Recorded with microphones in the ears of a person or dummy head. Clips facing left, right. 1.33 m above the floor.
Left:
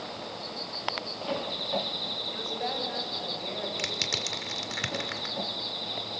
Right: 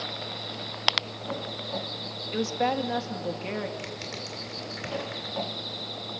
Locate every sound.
2.3 s a woman speaking: 85° right, 2 m
3.8 s crushing: 65° left (ahead or behind), 2.0 m